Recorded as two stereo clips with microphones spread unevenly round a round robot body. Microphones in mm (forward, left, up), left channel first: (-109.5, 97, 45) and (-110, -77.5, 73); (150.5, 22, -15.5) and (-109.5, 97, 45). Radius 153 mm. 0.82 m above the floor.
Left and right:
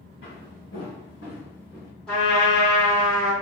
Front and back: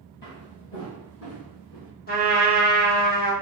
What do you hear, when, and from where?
0.2 s footsteps: 40° left, 1.4 m; by 1.9 s 10° left, 2.0 m
2.1 s a trumpet: 10° left, 1.0 m